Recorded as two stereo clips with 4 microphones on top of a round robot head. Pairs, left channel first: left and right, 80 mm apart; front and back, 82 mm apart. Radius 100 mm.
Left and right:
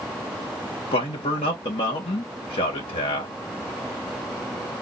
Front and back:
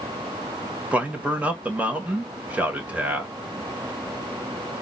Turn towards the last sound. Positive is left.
turn(degrees=110)